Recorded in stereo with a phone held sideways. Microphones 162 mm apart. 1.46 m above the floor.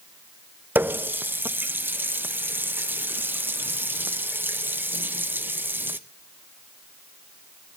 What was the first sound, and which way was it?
A running tap, 10° right (ahead or behind).